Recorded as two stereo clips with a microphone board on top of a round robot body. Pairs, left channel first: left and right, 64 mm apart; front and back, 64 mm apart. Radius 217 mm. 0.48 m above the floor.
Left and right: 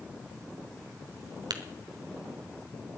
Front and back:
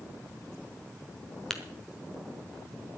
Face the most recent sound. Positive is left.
turn(degrees=-85)